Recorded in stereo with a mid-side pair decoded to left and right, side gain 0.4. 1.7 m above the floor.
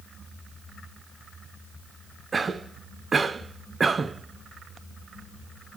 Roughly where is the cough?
Ahead right.